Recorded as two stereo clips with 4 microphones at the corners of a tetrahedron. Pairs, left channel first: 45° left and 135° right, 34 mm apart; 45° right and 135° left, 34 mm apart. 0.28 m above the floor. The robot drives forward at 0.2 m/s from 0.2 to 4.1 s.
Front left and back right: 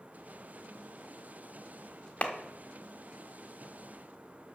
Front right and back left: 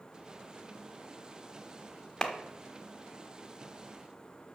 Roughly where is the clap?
Ahead left.